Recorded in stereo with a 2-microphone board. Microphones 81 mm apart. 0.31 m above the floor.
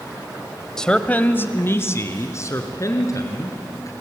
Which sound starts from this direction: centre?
A man speaking, at 0.8 s.